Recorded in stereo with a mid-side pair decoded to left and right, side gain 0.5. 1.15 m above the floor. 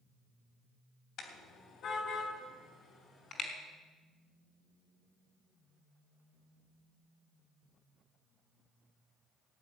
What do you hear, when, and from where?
1.2 s a car horn: 65° left, 3 m; by 3.5 s 50° left, 5 m